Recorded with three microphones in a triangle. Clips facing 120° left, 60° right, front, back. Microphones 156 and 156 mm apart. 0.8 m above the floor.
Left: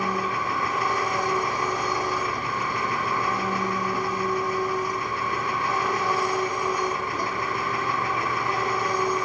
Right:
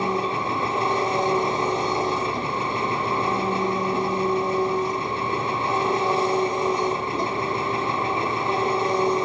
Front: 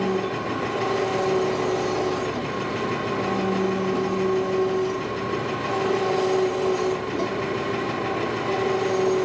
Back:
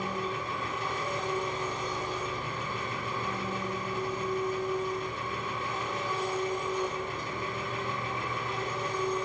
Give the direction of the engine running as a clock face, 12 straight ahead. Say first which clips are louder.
Right 3 dB, front 10 dB; 12 o'clock.